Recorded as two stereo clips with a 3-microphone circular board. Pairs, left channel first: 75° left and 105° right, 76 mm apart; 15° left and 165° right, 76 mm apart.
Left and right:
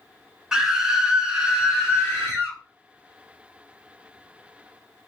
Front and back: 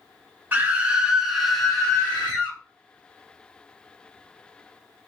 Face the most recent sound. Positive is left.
turn(degrees=-30)